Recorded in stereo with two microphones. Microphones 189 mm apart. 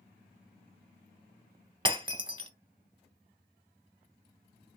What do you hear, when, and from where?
1.9 s breaking glass: 25° right (ahead or behind), 0.5 m